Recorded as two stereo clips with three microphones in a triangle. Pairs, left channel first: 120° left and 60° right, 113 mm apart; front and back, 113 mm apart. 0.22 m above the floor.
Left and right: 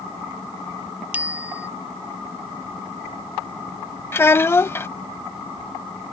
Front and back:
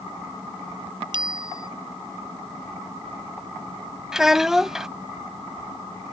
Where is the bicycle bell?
135° right.